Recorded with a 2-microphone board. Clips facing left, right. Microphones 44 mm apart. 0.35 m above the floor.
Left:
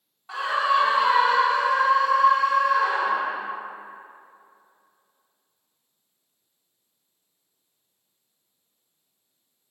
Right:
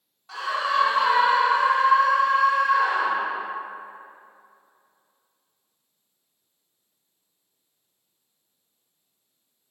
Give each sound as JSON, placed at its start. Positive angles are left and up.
{"t": 0.3, "sound": "a scream", "side_deg": 20, "distance_m": 1.6}